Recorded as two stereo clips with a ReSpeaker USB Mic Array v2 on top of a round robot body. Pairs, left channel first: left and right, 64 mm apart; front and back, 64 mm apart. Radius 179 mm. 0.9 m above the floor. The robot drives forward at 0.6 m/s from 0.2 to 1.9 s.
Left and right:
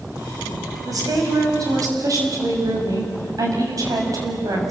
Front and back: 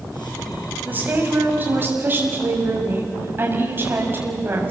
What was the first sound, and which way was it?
A woman speaking, 120° right.